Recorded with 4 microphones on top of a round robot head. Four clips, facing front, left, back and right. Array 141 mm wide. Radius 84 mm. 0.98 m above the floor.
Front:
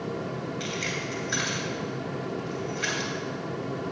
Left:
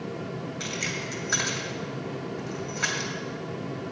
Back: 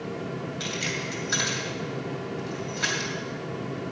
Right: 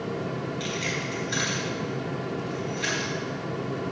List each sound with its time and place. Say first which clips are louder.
0.6 s keys jangling: right 3 dB, even; 125° left, 2 m